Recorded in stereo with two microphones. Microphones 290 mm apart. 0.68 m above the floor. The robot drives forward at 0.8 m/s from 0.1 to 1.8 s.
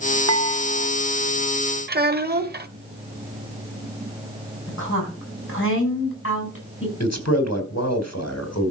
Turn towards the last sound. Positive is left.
turn(degrees=60)  # may be behind; listen again after turning